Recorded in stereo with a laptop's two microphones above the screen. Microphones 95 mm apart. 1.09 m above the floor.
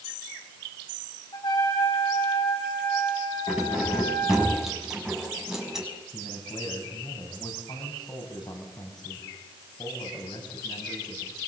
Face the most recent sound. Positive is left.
turn(degrees=50)  # may be behind; listen again after turning